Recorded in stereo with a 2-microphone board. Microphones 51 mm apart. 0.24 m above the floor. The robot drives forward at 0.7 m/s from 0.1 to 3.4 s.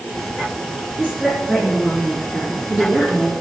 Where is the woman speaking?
5° right (ahead or behind), 3.5 m.